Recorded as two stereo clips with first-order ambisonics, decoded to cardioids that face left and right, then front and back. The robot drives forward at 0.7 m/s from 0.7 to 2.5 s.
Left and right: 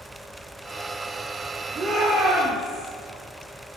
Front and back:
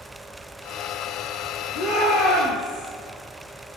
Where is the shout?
30° right, 9.5 m.